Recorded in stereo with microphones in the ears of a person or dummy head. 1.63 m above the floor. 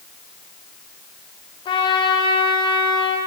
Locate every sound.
1.6 s a trumpet: 25° left (ahead or behind), 0.8 m